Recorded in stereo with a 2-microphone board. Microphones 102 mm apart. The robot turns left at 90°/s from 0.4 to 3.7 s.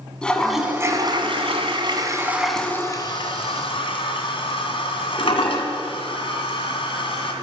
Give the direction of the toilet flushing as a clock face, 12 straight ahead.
12 o'clock.